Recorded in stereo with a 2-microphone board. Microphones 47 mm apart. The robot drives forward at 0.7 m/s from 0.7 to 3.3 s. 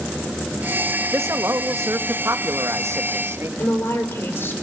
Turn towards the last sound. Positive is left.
turn(degrees=55)  # may be behind; listen again after turning